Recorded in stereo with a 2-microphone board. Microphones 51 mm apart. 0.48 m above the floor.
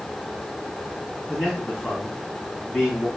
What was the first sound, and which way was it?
A man speaking, centre (ahead or behind).